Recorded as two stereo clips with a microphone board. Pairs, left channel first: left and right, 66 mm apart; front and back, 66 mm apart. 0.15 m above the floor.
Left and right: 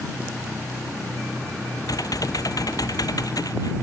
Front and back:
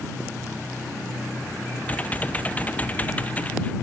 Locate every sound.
1.9 s typing on a keyboard: 70° left